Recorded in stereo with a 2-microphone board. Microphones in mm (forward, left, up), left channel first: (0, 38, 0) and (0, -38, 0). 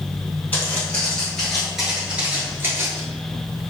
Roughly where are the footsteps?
Left.